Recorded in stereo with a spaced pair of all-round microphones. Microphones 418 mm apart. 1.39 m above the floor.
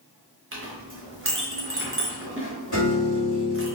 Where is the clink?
30° right (ahead or behind), 0.7 m.